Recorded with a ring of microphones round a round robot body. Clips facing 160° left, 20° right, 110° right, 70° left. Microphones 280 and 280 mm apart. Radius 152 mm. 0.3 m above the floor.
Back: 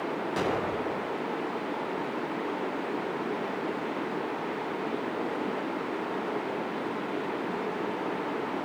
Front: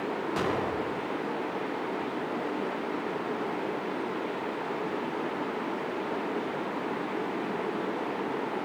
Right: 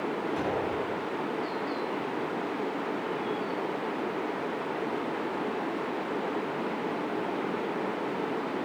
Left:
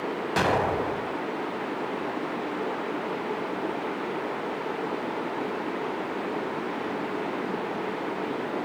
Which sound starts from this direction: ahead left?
An explosion, at 0.4 s.